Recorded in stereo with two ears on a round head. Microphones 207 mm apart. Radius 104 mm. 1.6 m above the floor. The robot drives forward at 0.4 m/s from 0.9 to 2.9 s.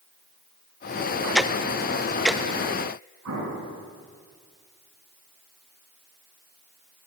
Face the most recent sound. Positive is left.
turn(degrees=-85)